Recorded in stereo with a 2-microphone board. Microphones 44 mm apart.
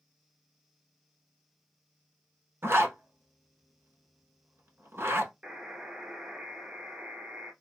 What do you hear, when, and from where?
2.6 s a zipper: 70° right (ahead or behind), 1.0 m
5.4 s a buzzer: 25° right (ahead or behind), 0.8 m